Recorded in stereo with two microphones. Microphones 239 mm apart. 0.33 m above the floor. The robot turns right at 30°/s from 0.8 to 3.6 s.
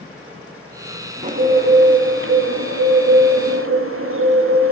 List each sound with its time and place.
1.2 s a bird: 145° right, 0.9 m; by 4.7 s 75° right, 0.9 m